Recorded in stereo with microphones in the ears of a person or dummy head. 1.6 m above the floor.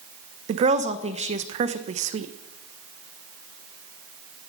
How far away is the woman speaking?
About 1.1 m.